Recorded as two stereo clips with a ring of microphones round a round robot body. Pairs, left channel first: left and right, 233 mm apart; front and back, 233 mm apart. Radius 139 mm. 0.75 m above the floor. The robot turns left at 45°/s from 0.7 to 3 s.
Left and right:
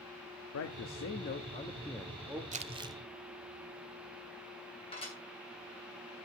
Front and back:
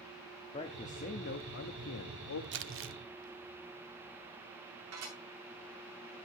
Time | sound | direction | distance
0.5 | a man speaking | 65° left | 1.0 m
2.5 | crumpling | 145° right | 0.9 m
4.9 | dishes clattering | 155° left | 8 m